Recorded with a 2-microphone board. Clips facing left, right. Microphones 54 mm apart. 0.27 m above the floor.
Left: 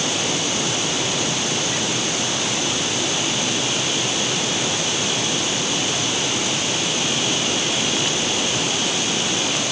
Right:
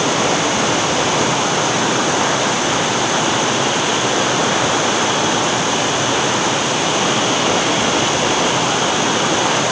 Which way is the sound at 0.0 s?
80° right.